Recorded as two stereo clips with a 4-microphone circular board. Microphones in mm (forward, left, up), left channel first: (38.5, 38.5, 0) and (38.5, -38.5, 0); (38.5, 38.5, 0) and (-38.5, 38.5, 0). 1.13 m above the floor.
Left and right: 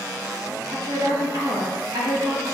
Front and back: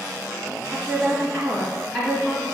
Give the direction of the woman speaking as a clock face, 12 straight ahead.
3 o'clock.